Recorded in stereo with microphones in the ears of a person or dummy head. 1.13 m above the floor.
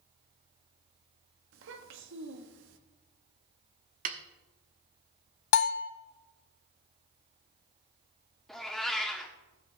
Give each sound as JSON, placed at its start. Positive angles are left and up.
{"t": 1.5, "sound": "a child speaking", "side_deg": -70, "distance_m": 1.4}
{"t": 4.0, "sound": "a snare drum", "side_deg": -45, "distance_m": 1.0}
{"t": 5.5, "sound": "a bell", "side_deg": 65, "distance_m": 0.6}
{"t": 8.5, "sound": "a cat meowing", "side_deg": 0, "distance_m": 1.3}